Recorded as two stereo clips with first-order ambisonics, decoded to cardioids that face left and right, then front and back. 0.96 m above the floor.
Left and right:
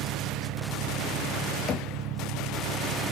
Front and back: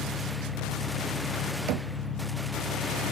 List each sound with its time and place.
0.0 s an engine running: 85° right, 1.9 m
1.7 s knocking: 150° left, 0.7 m